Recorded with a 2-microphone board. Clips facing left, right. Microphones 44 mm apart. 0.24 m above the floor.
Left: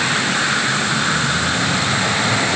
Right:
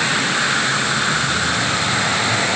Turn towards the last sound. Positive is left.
No sound to turn to.